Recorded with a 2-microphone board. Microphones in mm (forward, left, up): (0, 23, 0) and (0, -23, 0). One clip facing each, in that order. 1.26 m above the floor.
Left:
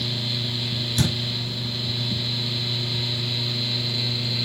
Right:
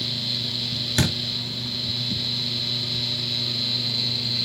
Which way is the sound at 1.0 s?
50° right (ahead or behind).